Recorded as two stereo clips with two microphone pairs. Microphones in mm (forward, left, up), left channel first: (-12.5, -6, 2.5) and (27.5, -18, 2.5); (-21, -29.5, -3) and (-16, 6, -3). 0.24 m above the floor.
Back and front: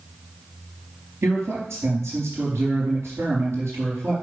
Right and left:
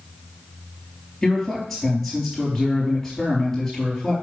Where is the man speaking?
20° right, 5 m.